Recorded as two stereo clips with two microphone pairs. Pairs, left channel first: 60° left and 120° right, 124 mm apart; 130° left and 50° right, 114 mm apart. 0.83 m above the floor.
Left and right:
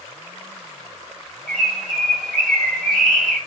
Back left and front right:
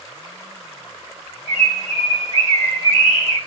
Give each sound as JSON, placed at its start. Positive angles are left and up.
{"t": 1.5, "sound": "a bird", "azimuth_deg": 145, "distance_m": 2.5}